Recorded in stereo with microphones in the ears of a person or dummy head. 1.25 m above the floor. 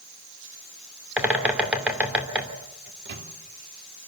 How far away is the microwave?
About 2.5 m.